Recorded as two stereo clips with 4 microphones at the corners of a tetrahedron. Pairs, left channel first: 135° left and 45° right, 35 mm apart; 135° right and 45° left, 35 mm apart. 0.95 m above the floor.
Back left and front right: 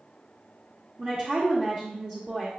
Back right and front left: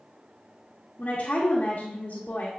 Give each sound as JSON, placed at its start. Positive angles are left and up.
{"t": 1.0, "sound": "a woman speaking", "azimuth_deg": -105, "distance_m": 1.4}